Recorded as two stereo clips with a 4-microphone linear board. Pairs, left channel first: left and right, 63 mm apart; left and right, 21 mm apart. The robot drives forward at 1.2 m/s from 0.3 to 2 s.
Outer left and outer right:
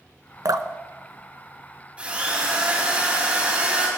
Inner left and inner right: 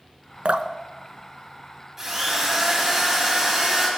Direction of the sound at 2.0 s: 20° right (ahead or behind).